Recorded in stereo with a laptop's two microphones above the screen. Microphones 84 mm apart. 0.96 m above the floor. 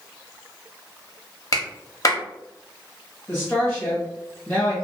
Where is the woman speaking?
25° left (ahead or behind), 1.2 m.